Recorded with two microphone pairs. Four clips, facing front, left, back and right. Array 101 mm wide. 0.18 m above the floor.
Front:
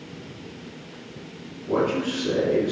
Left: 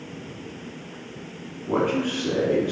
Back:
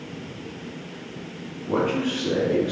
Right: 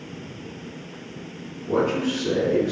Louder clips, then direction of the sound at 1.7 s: Right 1 dB, even; 120° left.